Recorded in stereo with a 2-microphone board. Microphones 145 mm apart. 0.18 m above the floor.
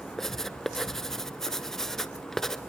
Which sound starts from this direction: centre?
Writing, at 0.2 s.